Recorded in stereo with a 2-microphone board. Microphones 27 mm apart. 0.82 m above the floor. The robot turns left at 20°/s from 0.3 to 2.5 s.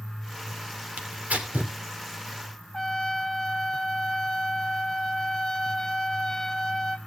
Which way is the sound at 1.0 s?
70° right (ahead or behind).